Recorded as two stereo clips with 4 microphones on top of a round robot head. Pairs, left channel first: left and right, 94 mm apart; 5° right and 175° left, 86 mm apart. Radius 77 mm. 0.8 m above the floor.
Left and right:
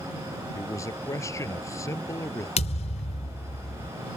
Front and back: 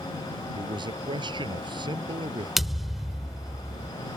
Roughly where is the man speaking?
Behind left.